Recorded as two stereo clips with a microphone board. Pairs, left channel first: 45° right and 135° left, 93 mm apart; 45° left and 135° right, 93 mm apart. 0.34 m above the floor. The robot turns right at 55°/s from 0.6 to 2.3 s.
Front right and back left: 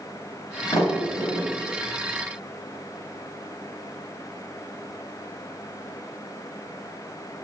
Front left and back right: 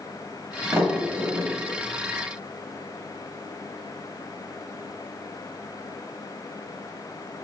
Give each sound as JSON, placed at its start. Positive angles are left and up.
{"t": 0.7, "sound": "a sliding door", "azimuth_deg": -75, "distance_m": 1.3}